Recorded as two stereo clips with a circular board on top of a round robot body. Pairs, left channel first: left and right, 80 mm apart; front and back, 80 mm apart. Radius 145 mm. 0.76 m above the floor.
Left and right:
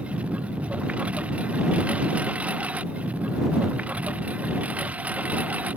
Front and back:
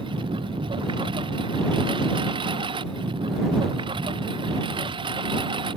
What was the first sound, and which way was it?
A lawn mower, 165° right.